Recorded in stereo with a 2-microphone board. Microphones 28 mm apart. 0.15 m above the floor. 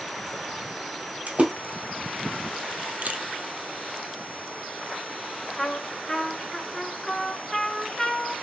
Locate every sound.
1.3 s a splash: 60° right (ahead or behind), 1.7 m
3.0 s a camera shutter: 60° right (ahead or behind), 0.6 m
5.6 s a trumpet: 15° left (ahead or behind), 0.9 m